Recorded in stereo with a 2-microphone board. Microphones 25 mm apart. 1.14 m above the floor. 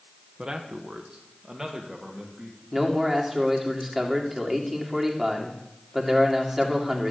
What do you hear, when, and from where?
0.4 s a man speaking: 35° right (ahead or behind), 1.1 m; by 2.6 s 15° right (ahead or behind), 2.5 m
2.7 s a man speaking: 10° right (ahead or behind), 2 m